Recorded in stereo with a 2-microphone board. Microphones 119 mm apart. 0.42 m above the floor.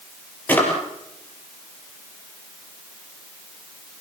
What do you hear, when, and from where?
0.5 s a drawer: 15° left (ahead or behind), 5 m